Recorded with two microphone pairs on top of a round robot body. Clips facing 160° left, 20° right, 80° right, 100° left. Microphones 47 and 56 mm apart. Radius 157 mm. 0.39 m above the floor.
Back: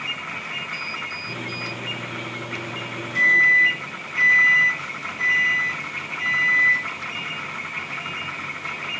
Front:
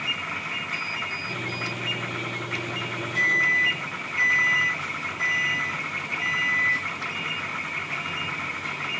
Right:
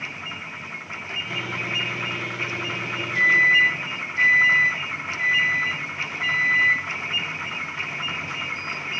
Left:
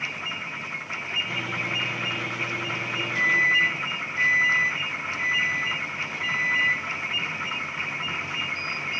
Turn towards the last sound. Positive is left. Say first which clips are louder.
# even, right 1 dB
turn(degrees=165)